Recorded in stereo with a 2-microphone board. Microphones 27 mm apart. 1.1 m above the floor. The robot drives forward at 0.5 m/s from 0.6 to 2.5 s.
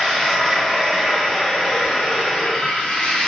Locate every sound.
0.0 s running water: 35° left (ahead or behind), 1.8 m; by 3.3 s 60° left (ahead or behind), 1.1 m